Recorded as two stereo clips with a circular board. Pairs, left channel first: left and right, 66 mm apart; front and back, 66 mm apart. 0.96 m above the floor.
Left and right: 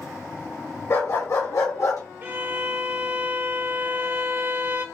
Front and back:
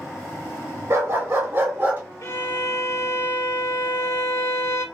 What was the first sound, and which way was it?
A dog barking, 140° left.